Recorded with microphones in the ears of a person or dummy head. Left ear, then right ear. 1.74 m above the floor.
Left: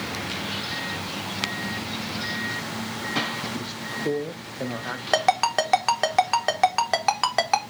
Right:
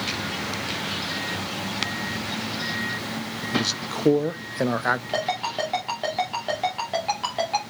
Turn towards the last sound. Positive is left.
turn(degrees=45)  # may be behind; listen again after turning